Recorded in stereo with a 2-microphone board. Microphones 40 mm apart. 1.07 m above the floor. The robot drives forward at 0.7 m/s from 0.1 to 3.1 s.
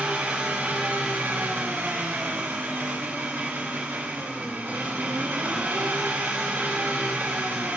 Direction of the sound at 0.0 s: 60° right (ahead or behind).